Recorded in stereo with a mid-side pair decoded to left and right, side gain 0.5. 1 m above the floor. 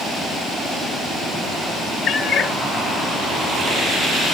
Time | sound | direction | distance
2.1 | a cat meowing | 65° left | 0.9 m